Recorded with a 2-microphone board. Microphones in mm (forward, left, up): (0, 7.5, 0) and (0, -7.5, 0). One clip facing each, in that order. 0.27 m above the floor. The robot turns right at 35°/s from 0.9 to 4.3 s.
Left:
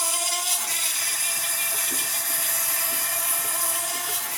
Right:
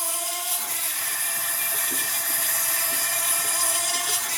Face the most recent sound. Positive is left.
turn(degrees=-125)